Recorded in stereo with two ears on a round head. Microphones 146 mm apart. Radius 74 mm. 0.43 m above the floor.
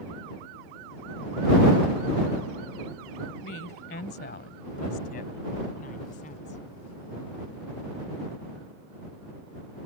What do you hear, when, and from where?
3.4 s a woman speaking: 65° left (ahead or behind); by 6.6 s 50° left (ahead or behind)